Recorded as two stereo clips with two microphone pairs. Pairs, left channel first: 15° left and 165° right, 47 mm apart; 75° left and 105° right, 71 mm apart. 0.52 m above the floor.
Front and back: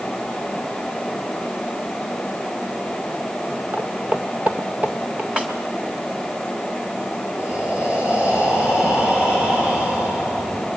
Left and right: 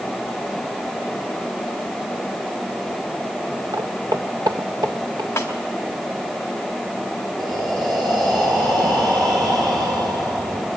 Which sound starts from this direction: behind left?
A snare drum, at 5.4 s.